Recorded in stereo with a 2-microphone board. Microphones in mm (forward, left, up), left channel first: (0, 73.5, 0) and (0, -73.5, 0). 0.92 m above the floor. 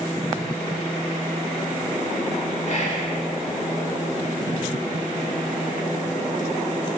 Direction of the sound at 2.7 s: 50° left (ahead or behind).